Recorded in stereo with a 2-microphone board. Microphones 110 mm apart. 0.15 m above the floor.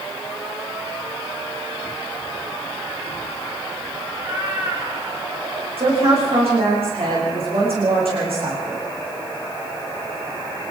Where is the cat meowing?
25° right (ahead or behind), 6 m.